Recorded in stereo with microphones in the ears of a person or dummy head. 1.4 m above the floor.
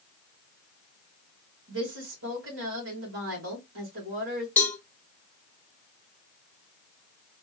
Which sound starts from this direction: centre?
A cowbell, at 4.6 s.